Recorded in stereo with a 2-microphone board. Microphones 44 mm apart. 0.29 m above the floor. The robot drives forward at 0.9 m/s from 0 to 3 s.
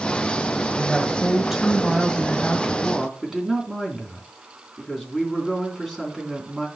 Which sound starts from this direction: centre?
A woman speaking, at 0.8 s.